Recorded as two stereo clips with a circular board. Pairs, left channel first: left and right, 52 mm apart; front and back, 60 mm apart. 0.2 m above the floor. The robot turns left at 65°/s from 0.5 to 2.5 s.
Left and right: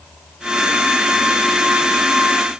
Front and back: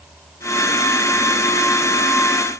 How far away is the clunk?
No clunk in this recording.